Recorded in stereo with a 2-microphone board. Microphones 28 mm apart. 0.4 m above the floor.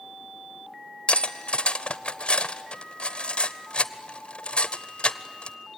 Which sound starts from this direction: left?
Cutlery clinking, at 1.1 s.